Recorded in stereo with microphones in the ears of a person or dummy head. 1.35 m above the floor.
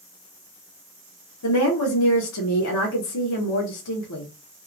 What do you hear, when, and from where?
1.4 s a woman speaking: 80° left, 0.8 m